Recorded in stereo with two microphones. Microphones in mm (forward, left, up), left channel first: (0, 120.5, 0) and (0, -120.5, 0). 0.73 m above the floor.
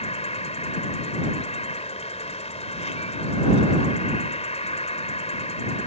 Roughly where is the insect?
Left.